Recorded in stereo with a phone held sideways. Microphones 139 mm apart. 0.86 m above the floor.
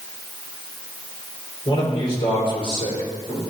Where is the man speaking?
40° left (ahead or behind), 3.5 m.